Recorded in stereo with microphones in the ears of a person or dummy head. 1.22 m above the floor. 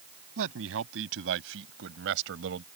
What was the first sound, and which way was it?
A man speaking, 75° right (ahead or behind).